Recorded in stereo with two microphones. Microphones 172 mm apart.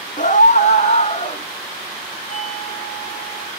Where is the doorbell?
15° left (ahead or behind), 3.5 m.